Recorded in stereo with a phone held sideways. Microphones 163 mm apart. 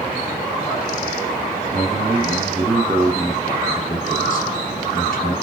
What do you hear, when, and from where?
1.7 s a man speaking: 25° right (ahead or behind), 1.2 m; by 5.3 s 65° left (ahead or behind), 1.2 m